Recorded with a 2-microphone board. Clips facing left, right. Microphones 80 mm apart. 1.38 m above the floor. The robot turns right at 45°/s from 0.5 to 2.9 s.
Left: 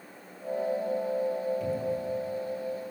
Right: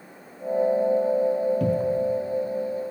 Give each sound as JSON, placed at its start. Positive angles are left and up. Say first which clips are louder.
{"t": 1.6, "sound": "a cupboard door", "louder": "right 8 dB", "side_deg": -65, "distance_m": 0.7}